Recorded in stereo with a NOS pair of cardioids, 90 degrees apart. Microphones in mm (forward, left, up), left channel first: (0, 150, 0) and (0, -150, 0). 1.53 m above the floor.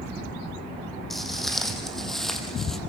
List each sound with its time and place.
1.1 s footsteps: straight ahead, 5 m